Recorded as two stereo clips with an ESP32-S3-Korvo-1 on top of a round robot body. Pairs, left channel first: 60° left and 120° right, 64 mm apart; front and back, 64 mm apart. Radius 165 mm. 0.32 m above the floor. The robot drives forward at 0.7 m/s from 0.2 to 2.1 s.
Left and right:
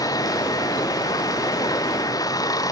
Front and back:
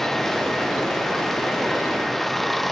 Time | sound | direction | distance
0.0 | running water | 85° left | ?